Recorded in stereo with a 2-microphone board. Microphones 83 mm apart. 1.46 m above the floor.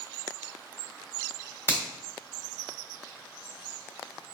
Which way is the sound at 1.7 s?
25° left (ahead or behind).